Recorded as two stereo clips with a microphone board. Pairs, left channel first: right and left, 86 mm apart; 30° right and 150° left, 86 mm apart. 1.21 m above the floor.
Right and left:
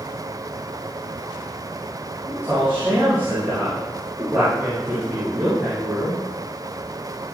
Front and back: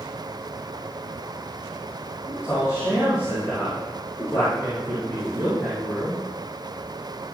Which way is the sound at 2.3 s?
25° left.